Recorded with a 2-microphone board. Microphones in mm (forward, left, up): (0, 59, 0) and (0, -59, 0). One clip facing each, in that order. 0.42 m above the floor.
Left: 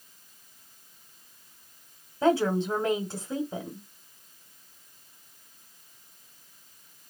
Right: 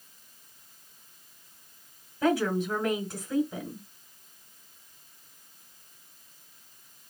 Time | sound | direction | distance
2.2 | a woman speaking | 30° left (ahead or behind) | 1.1 m